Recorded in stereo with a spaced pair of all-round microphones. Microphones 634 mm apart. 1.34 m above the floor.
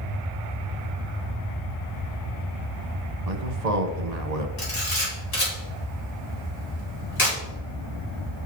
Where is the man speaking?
80° right, 0.9 m.